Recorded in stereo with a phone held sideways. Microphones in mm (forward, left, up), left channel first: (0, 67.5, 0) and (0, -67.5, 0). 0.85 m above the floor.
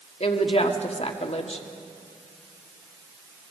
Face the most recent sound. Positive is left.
turn(degrees=50)  # may be behind; listen again after turning